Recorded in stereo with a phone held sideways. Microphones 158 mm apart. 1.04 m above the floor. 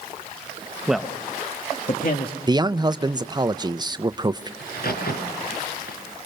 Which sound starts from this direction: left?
A crack, at 4.6 s.